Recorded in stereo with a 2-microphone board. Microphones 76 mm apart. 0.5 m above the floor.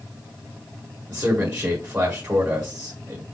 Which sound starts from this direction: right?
A man speaking, at 1.1 s.